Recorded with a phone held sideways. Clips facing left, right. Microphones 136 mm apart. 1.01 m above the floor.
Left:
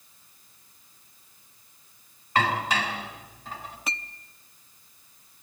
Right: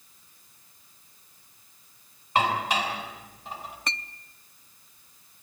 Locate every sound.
2.4 s dishes clattering: 20° right (ahead or behind), 4.5 m
3.9 s a clink: 5° left (ahead or behind), 0.6 m